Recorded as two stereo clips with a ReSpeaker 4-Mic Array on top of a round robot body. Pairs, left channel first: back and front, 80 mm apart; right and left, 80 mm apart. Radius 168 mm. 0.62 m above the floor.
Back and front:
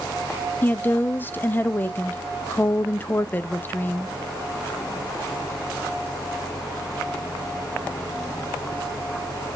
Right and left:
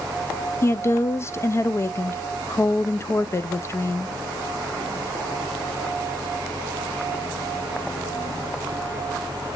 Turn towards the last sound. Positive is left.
turn(degrees=-125)